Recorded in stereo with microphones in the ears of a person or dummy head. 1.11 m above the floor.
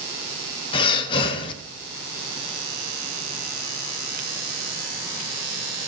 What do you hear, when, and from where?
0.7 s breathing: 25° left (ahead or behind), 1.2 m